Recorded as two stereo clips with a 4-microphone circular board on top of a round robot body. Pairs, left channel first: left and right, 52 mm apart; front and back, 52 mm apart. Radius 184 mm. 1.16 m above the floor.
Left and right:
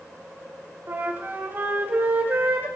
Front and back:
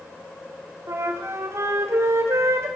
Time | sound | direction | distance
0.9 | a flute | 145° right | 1.9 m